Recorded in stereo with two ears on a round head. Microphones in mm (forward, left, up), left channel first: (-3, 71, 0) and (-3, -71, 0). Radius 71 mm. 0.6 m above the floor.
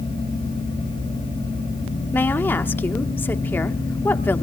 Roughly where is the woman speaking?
Centre.